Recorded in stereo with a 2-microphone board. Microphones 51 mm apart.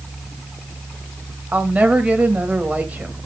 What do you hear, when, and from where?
1.5 s a woman speaking: 25° right (ahead or behind), 2.5 m